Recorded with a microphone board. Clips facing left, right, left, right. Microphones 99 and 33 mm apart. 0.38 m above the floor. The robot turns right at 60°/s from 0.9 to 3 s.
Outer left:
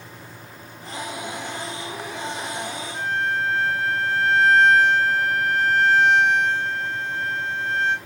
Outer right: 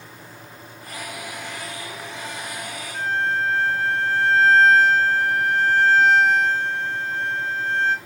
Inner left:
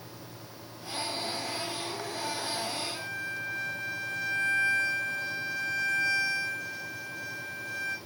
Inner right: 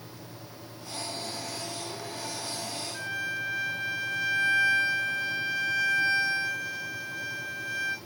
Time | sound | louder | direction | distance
2.9 | a violin | outer right 2 dB, inner right 3 dB | 35° right (ahead or behind) | 3.5 m